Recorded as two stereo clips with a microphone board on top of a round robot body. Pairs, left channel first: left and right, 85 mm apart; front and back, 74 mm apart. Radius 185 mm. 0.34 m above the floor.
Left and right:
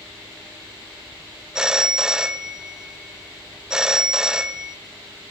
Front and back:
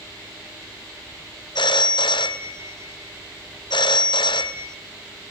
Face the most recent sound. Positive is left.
turn(degrees=-10)